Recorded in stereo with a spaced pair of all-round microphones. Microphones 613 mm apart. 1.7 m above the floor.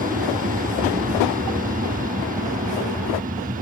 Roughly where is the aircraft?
Centre.